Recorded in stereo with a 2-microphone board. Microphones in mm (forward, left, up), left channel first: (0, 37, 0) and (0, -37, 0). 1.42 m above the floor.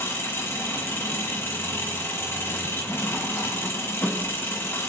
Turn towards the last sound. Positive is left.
turn(degrees=30)  # may be behind; listen again after turning